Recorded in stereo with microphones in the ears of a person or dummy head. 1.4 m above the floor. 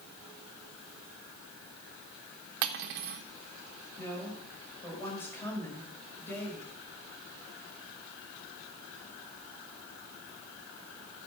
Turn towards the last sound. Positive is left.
turn(degrees=15)  # may be behind; listen again after turning